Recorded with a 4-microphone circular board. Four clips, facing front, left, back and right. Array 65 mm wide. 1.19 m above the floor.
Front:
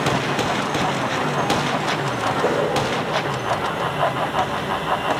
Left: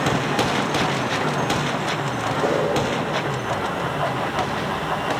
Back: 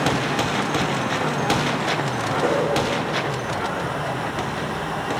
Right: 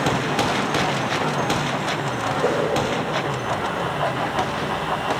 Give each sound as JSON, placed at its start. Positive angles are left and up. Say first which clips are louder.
{"t": 2.4, "sound": "a whoosh", "louder": "even, even", "azimuth_deg": 150, "distance_m": 3.5}